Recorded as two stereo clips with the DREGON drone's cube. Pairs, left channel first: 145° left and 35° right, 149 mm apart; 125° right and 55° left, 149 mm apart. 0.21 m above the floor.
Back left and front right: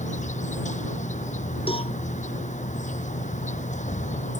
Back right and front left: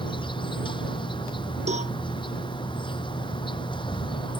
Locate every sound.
0.0 s an insect: straight behind
1.7 s a cowbell: 95° left